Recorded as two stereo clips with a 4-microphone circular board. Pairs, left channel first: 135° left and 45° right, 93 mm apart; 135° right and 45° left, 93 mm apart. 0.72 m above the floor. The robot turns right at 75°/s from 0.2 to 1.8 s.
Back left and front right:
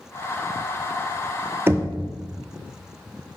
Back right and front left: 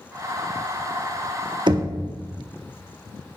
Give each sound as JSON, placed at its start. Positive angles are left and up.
{"t": 1.7, "sound": "knocking", "azimuth_deg": 15, "distance_m": 0.5}